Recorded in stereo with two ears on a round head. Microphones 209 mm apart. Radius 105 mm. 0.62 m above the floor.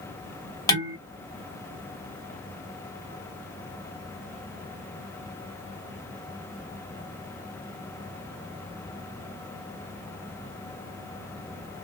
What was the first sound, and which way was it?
Dishes clattering, 15° left (ahead or behind).